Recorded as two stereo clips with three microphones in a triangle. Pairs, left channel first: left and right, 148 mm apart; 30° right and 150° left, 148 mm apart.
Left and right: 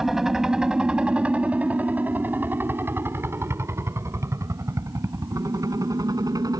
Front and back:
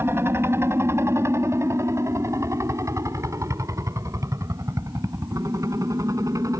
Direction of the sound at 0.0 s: 175° right.